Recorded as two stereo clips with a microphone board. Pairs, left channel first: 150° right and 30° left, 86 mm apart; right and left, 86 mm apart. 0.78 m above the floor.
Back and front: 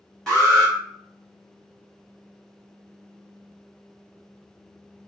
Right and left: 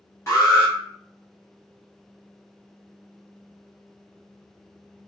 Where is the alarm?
70° right, 1.3 m.